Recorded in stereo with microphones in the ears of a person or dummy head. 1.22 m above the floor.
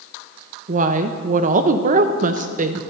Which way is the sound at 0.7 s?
40° right (ahead or behind).